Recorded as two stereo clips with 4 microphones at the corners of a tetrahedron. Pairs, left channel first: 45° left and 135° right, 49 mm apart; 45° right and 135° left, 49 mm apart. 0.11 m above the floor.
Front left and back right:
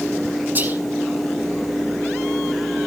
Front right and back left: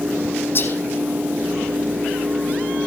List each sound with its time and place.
0.6 s whispering: 85° right, 4 m